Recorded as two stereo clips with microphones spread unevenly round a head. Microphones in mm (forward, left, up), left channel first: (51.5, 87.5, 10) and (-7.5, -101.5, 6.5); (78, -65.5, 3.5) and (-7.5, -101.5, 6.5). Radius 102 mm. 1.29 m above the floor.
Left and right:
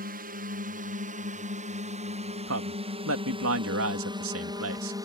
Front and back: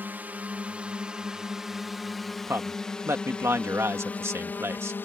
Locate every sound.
0.0 s a drone: 95° right; by 5.1 s 40° right
2.5 s a man speaking: 95° right